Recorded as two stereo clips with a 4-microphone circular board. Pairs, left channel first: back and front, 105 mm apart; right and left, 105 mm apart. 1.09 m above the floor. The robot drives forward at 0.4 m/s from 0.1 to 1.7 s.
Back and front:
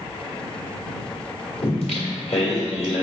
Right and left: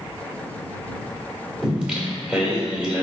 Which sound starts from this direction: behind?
Singing, at 1.6 s.